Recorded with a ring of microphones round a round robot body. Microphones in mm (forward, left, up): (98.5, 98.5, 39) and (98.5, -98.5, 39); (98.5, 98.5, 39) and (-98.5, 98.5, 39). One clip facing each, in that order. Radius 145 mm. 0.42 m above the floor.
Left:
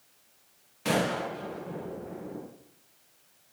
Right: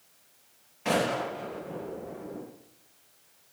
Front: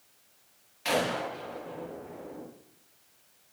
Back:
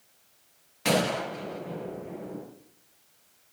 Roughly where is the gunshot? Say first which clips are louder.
Right 1 dB, back 3 dB; behind left.